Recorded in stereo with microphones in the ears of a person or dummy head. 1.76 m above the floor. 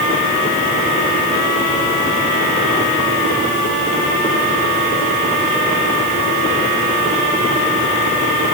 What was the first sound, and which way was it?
Only background noise.